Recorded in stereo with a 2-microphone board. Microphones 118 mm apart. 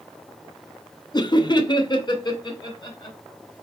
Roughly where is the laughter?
Left.